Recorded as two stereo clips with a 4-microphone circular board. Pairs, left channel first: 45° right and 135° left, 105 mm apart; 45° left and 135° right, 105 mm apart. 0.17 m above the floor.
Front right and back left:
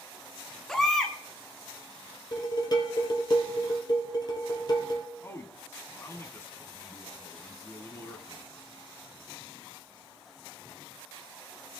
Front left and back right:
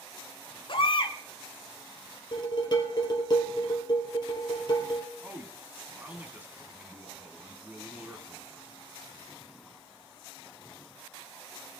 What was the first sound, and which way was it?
A baby crying, 40° left.